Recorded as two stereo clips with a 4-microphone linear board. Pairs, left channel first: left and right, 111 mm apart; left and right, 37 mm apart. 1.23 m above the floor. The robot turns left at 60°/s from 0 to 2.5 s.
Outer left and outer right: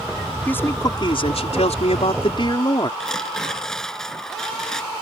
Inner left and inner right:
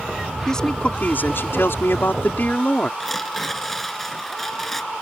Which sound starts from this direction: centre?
Tearing paper, at 3.0 s.